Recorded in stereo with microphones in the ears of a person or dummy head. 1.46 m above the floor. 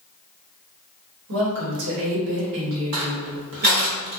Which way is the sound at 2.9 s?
40° right (ahead or behind).